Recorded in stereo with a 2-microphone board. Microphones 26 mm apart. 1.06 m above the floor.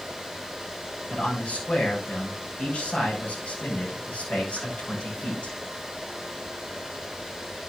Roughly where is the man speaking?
Left.